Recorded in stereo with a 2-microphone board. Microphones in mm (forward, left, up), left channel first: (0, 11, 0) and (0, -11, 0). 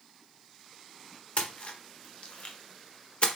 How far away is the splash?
About 1.0 m.